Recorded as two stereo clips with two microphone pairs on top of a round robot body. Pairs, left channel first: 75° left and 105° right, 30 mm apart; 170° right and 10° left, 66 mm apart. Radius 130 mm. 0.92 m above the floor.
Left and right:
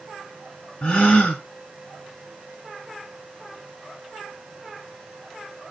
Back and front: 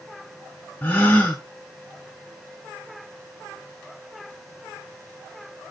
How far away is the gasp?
About 0.9 m.